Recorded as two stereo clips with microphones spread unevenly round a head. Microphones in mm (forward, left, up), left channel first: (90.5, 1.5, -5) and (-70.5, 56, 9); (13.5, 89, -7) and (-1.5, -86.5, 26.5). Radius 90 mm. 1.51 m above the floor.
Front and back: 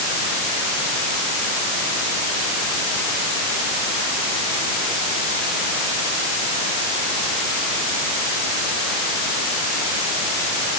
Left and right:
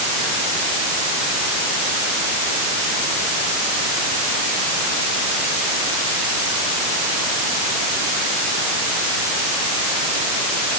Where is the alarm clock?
I don't hear an alarm clock.